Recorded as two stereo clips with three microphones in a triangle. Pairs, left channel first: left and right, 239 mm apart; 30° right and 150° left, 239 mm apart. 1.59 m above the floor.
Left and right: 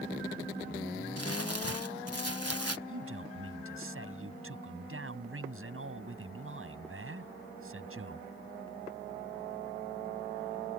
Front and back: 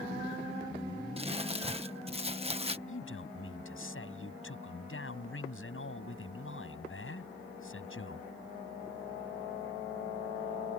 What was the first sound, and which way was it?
Crumpling, 85° left.